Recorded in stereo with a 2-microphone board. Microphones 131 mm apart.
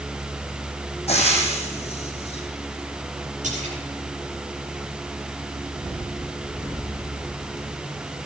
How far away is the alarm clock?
I don't hear an alarm clock.